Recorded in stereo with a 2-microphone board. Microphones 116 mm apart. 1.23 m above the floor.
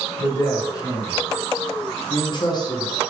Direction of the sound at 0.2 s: 20° left (ahead or behind).